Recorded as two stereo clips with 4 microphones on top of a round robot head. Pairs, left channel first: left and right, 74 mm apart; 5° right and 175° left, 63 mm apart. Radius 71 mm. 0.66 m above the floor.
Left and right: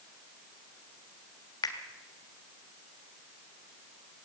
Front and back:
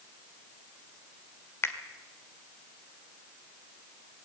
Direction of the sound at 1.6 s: 45° left.